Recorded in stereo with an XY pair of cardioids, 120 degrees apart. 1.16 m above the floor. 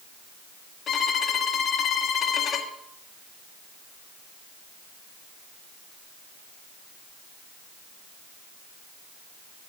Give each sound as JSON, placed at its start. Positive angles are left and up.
{"t": 0.9, "sound": "a violin", "azimuth_deg": 50, "distance_m": 1.5}